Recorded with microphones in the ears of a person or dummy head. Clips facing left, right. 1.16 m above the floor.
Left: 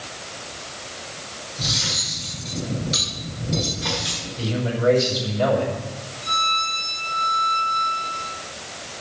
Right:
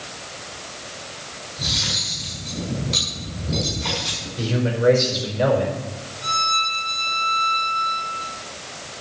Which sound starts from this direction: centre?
Cutlery clinking, at 1.6 s.